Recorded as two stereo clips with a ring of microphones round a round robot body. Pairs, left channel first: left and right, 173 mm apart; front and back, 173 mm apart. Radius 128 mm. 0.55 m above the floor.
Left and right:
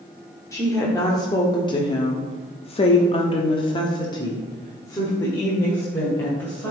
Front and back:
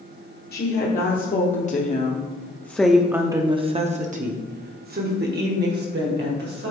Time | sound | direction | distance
0.5 | a woman speaking | 20° left | 1.4 m